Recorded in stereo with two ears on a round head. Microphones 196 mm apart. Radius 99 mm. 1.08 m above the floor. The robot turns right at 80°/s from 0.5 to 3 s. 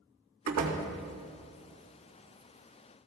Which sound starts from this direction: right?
A door slam, at 0.5 s.